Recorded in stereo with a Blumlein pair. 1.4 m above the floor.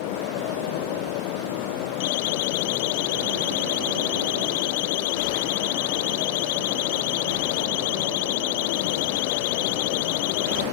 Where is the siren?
50° left.